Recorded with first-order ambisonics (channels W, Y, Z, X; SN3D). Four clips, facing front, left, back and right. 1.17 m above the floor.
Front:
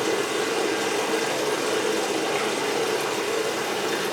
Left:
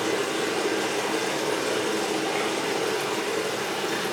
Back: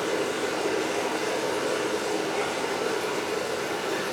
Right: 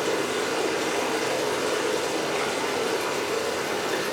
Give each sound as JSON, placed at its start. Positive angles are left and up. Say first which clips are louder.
{"t": 0.0, "sound": "running water", "louder": "even, front 3 dB", "azimuth_deg": 25, "distance_m": 2.5}